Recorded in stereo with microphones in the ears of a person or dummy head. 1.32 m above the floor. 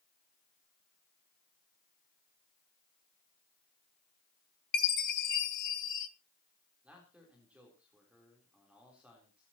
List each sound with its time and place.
4.7 s a chime: 55° left (ahead or behind), 2.5 m
6.8 s a man speaking: 5° right (ahead or behind), 3.5 m